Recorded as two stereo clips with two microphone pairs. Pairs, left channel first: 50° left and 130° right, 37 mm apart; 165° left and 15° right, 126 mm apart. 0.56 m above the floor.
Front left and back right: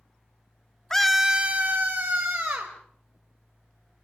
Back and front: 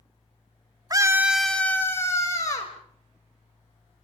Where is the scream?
20° right, 1.1 m; by 2.7 s 135° right, 3 m.